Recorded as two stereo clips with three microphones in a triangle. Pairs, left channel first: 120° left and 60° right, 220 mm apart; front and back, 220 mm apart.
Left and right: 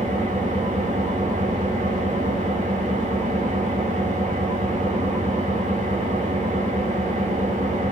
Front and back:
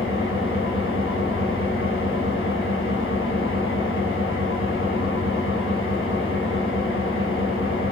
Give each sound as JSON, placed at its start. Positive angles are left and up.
{"t": 0.0, "sound": "an engine running", "azimuth_deg": -5, "distance_m": 2.0}